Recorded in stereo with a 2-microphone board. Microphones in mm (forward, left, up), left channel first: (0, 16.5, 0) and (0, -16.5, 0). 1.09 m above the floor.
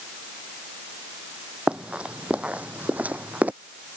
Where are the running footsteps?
30° right (ahead or behind); by 3.5 s 55° right (ahead or behind).